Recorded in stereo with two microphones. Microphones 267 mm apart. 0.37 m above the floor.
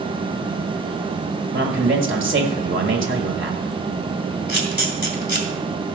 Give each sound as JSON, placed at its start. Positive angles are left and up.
{"t": 1.5, "sound": "a man speaking", "side_deg": -50, "distance_m": 1.7}
{"t": 4.5, "sound": "a camera shutter", "side_deg": 40, "distance_m": 2.5}